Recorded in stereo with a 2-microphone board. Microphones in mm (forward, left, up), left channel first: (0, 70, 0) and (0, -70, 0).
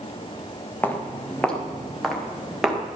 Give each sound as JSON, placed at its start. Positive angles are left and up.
{"t": 0.8, "sound": "footsteps", "side_deg": 10, "distance_m": 3.0}